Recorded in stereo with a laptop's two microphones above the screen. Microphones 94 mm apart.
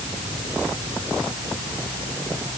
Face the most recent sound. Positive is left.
No sound to turn to.